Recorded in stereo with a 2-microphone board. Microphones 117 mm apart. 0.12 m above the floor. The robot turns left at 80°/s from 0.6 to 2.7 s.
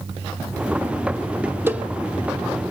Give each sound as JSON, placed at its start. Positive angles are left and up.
{"t": 1.7, "sound": "a cowbell", "side_deg": -20, "distance_m": 0.9}